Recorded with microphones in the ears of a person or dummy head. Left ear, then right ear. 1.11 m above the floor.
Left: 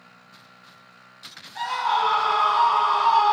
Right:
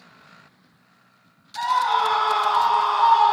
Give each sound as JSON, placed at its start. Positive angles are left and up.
{"t": 1.6, "sound": "a scream", "side_deg": 75, "distance_m": 2.5}